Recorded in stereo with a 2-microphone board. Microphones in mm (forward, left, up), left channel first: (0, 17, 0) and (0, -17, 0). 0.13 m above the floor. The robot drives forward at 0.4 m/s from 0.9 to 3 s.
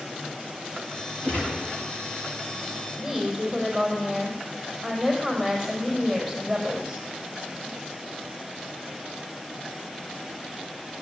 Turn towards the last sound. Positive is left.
turn(degrees=0)  # may be behind; listen again after turning